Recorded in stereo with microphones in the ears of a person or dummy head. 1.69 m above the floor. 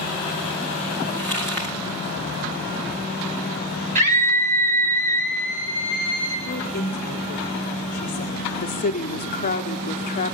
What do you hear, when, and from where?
1.2 s crumpling: 5° left (ahead or behind), 3 m
4.0 s a scream: 45° right (ahead or behind), 4.5 m
6.5 s a woman speaking: 50° left (ahead or behind), 2 m
8.6 s a woman speaking: 40° left (ahead or behind), 1.0 m